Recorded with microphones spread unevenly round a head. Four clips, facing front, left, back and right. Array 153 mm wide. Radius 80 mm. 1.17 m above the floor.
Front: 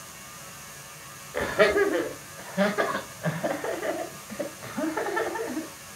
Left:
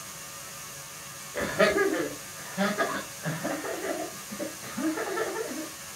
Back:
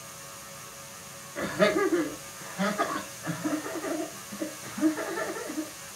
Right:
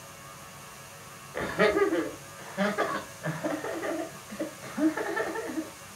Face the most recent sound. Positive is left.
turn(degrees=-5)